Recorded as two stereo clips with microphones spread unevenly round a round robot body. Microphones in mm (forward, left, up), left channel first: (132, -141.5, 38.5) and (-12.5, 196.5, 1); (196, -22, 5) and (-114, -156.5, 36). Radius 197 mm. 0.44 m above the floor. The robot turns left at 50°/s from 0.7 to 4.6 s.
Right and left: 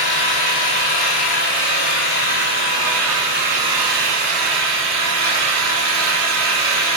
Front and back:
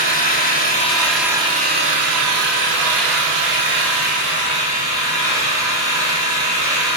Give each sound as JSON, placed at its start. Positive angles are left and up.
{"t": 0.0, "sound": "an engine running", "azimuth_deg": -45, "distance_m": 7.0}